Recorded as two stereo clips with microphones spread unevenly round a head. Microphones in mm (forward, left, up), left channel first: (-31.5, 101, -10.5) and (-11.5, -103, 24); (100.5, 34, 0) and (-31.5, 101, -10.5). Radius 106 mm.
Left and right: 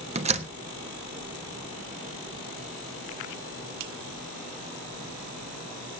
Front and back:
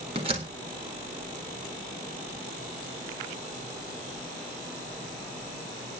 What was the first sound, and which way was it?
A door slam, 140° right.